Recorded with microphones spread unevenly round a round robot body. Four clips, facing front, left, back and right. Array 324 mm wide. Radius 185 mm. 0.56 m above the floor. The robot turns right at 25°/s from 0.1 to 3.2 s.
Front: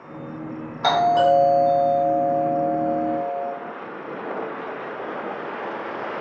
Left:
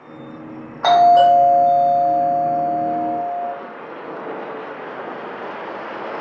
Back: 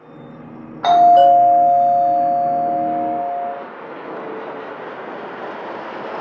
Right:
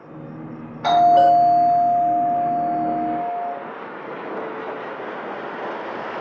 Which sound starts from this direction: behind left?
A doorbell, at 0.8 s.